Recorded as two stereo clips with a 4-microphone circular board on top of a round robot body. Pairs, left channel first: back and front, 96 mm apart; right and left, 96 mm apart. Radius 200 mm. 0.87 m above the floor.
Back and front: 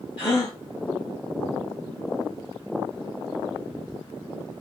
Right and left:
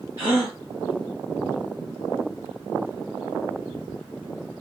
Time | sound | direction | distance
0.2 | a gasp | 150° left | 0.7 m